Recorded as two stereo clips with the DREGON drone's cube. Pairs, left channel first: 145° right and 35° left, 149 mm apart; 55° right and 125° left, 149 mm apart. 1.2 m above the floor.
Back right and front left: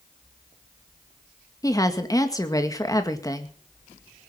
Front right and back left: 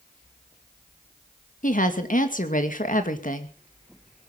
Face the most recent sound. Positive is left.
turn(degrees=-80)